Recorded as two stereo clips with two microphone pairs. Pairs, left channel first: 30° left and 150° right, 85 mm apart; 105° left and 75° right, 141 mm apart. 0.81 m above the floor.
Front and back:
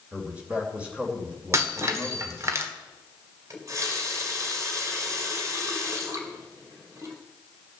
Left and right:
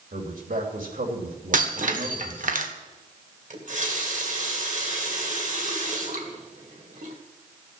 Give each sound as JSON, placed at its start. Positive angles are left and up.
{"t": 0.1, "sound": "a man speaking", "azimuth_deg": -70, "distance_m": 3.0}
{"t": 1.5, "sound": "breaking glass", "azimuth_deg": -95, "distance_m": 1.4}
{"t": 3.5, "sound": "a running tap", "azimuth_deg": -95, "distance_m": 2.0}